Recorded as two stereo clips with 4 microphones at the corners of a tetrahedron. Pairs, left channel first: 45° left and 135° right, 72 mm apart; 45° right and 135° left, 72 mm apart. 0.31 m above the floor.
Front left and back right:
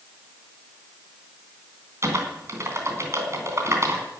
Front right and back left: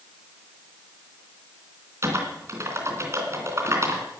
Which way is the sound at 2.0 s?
Straight behind.